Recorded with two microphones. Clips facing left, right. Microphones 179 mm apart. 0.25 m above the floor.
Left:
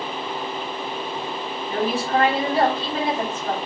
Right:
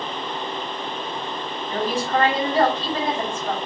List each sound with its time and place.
1.7 s a woman speaking: 10° left (ahead or behind), 1.5 m